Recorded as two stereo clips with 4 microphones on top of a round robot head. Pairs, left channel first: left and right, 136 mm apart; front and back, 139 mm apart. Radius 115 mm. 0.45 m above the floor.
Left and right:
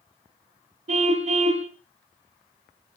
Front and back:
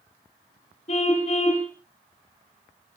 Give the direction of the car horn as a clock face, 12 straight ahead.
2 o'clock.